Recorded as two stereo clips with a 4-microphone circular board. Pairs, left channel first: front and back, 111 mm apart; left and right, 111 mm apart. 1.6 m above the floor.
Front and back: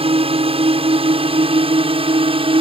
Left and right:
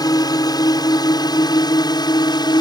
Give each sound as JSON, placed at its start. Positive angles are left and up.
{"t": 0.0, "sound": "a drone", "azimuth_deg": 145}